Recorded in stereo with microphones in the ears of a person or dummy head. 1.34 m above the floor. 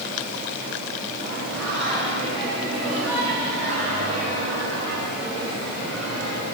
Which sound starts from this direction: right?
Singing, at 1.2 s.